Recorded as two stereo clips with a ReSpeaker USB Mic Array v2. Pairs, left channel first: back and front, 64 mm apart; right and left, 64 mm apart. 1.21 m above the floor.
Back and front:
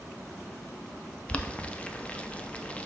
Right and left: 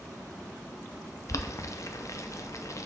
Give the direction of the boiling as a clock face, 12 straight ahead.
4 o'clock.